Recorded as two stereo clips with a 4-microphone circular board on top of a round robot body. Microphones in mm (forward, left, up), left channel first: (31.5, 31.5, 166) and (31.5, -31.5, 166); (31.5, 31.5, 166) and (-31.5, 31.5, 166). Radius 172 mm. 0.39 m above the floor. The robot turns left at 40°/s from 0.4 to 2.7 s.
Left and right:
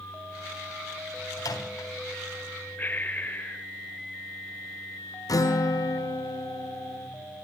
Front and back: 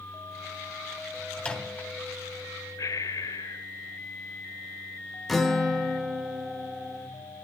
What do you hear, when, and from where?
1.4 s a microwave: 75° left, 3 m; by 1.9 s 55° left, 3 m
2.8 s breathing: 30° left, 1.0 m
5.3 s a guitar: 90° left, 2.5 m